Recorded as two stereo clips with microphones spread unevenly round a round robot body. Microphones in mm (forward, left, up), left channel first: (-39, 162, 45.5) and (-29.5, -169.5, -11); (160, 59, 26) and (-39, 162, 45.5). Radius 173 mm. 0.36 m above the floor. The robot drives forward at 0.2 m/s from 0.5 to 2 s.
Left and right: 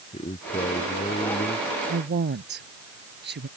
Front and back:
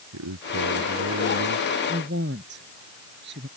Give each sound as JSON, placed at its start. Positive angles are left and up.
{"t": 0.1, "sound": "a man speaking", "azimuth_deg": 165}
{"t": 1.9, "sound": "a woman speaking", "azimuth_deg": -150}